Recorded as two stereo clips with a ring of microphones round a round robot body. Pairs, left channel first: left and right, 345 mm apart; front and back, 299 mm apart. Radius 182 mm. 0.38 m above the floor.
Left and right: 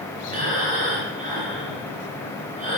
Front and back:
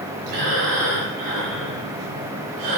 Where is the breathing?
160° right, 7 m.